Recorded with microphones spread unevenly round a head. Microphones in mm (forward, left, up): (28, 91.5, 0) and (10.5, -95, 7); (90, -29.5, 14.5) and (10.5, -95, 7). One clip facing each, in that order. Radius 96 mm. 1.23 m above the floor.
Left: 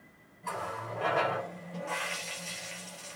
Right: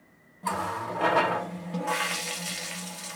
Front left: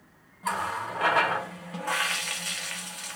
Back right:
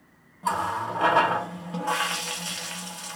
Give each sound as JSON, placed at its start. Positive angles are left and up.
{"t": 0.4, "sound": "a running tap", "azimuth_deg": -75, "distance_m": 1.0}